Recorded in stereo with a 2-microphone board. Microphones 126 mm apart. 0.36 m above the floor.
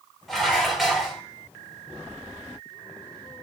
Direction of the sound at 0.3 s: Centre (ahead or behind).